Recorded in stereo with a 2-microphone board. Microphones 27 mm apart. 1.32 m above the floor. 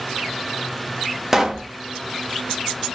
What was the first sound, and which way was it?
A pop, 15° right (ahead or behind).